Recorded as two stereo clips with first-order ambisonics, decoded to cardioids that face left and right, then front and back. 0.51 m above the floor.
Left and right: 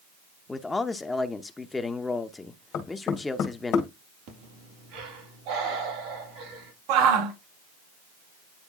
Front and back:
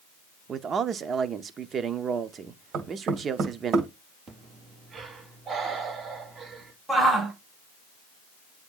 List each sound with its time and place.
0.5 s a man speaking: 155° left, 0.7 m
2.7 s knocking: 135° left, 2 m
4.3 s breathing: 110° right, 4 m
6.9 s a shout: 95° right, 2.5 m